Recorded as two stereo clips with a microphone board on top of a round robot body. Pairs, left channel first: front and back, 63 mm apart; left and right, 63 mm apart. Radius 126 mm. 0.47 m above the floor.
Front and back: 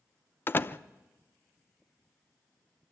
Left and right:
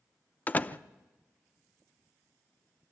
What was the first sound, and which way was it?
A door slam, 35° left.